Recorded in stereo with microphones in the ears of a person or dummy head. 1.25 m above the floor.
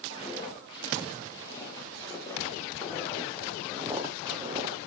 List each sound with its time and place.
0.1 s footsteps: 25° left (ahead or behind), 6 m; by 4.9 s 40° right (ahead or behind), 2.5 m